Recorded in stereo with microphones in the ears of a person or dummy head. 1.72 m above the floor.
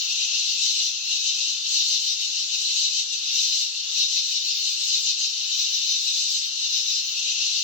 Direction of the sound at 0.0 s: 45° left (ahead or behind).